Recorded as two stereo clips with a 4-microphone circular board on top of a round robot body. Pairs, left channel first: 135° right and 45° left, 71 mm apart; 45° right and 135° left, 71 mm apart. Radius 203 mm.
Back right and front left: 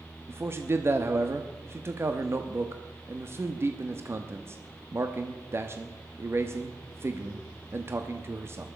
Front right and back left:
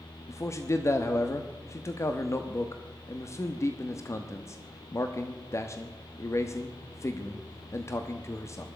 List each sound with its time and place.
0.3 s a man speaking: 5° right, 1.2 m